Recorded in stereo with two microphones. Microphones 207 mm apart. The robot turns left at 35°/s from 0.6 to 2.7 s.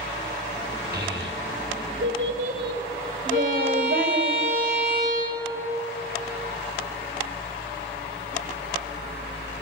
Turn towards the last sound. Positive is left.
turn(degrees=45)  # may be behind; listen again after turning